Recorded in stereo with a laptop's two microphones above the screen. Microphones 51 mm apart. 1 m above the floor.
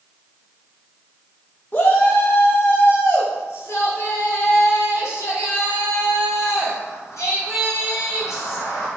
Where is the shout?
40° left (ahead or behind), 1.2 m; by 8.9 s 85° left, 5.5 m.